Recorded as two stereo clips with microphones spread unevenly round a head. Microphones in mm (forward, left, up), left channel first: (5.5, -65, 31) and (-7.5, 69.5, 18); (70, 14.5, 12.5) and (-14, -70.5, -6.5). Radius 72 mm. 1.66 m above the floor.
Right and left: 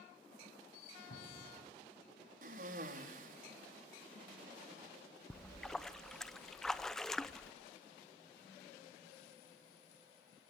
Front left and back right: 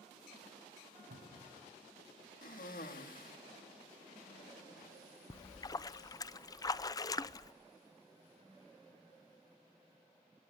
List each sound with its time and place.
1.1 s a cupboard door: 120° right, 8.5 m
2.4 s a cough: 65° left, 3 m
5.3 s a splash: straight ahead, 0.6 m